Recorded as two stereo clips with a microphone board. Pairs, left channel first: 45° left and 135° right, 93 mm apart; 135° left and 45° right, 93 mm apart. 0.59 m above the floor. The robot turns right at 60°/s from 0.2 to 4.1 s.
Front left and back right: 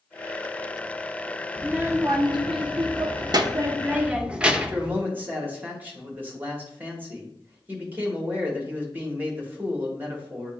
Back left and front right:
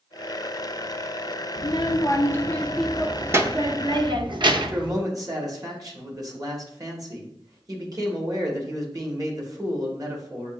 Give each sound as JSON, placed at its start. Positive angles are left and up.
{"t": 1.6, "sound": "a child speaking", "azimuth_deg": 150, "distance_m": 0.6}
{"t": 4.5, "sound": "a man speaking", "azimuth_deg": -75, "distance_m": 1.2}